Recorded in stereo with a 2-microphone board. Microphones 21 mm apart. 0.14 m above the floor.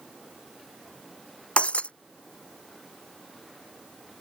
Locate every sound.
1.6 s breaking glass: 80° left